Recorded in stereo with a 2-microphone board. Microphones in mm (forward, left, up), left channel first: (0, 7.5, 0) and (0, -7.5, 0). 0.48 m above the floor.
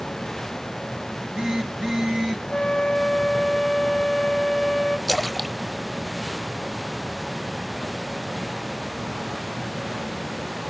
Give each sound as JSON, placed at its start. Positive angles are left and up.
{"t": 1.1, "sound": "a phone buzzing", "side_deg": -55, "distance_m": 4.0}
{"t": 2.5, "sound": "a flute", "side_deg": 85, "distance_m": 0.6}
{"t": 5.1, "sound": "a splash", "side_deg": 40, "distance_m": 0.9}